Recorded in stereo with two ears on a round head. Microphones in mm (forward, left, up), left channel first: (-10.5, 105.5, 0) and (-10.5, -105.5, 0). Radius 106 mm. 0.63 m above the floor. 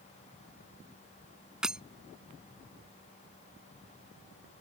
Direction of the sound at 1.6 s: 5° right (ahead or behind).